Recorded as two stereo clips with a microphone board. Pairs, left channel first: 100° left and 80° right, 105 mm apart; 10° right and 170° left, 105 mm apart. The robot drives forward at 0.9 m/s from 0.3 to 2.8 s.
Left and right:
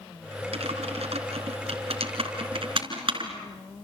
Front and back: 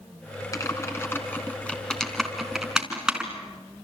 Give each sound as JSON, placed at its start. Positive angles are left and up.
{"t": 0.5, "sound": "typing on a keyboard", "azimuth_deg": -70, "distance_m": 3.0}